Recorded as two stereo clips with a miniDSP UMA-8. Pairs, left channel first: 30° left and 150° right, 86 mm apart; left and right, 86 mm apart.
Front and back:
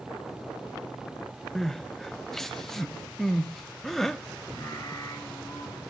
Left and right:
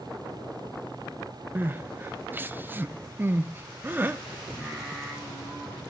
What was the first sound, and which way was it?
Crying, 55° right.